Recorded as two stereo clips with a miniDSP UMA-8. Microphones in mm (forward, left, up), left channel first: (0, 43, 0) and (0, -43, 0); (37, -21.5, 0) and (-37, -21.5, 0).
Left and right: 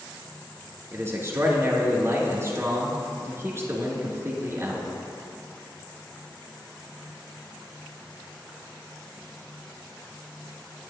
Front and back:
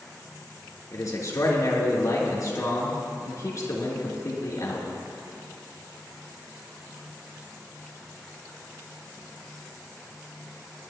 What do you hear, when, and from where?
0.9 s a man speaking: 35° right, 3 m